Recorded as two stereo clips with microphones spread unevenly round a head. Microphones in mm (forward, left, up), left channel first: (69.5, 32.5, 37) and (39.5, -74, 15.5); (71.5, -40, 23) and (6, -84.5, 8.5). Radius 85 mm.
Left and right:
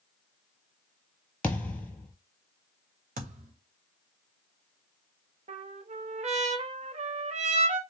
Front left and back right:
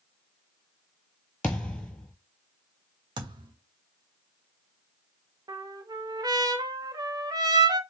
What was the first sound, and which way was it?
A thud, 50° left.